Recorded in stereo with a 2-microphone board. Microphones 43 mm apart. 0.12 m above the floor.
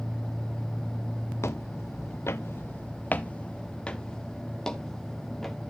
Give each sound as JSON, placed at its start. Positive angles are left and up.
{"t": 1.4, "sound": "footsteps", "side_deg": 75, "distance_m": 0.9}